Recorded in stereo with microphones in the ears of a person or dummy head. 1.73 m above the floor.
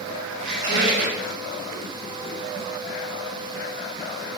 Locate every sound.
0.4 s a squeak: 65° right (ahead or behind), 3 m